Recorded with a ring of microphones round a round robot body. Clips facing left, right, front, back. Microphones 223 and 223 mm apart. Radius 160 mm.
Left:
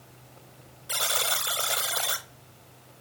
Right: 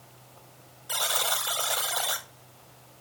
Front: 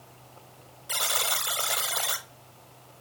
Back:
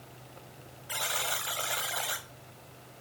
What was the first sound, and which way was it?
A buzzer, 30° left.